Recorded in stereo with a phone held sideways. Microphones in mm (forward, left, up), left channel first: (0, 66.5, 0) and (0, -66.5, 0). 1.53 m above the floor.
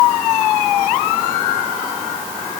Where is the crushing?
I don't hear crushing.